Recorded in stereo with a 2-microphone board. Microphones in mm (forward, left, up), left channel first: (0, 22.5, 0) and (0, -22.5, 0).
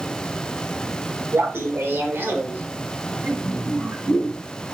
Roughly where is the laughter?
Right.